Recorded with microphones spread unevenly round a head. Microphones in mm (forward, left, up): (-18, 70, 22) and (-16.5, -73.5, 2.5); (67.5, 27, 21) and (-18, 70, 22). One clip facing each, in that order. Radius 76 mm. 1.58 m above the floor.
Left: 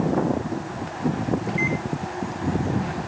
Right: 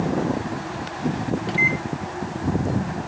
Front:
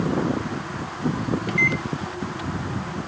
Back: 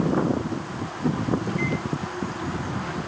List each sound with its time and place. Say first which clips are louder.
1.5 s a microwave: even, front 2 dB; 25° right, 1.0 m